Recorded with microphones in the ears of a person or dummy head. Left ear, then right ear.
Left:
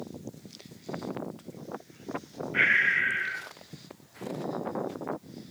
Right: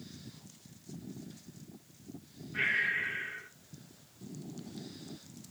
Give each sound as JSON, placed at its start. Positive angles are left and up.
{"t": 2.5, "sound": "breathing", "side_deg": 40, "distance_m": 0.9}